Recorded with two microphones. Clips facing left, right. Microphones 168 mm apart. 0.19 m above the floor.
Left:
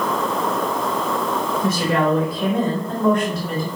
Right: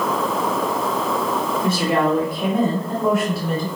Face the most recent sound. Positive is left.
turn(degrees=5)  # may be behind; listen again after turning